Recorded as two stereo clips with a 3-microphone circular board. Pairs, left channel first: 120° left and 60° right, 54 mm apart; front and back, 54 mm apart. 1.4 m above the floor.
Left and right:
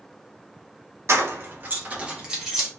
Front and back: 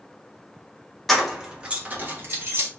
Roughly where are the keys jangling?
Right.